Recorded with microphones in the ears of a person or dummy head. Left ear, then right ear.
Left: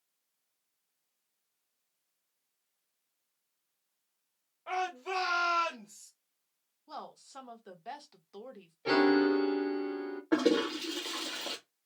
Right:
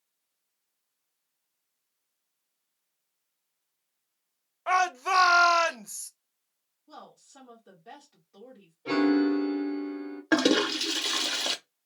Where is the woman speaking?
60° left (ahead or behind), 0.8 m.